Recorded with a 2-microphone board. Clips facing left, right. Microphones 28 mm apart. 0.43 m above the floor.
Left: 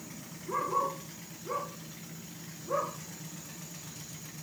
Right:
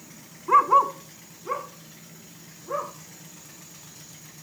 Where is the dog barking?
85° right, 1.1 m; by 2.9 s 15° right (ahead or behind), 3.5 m.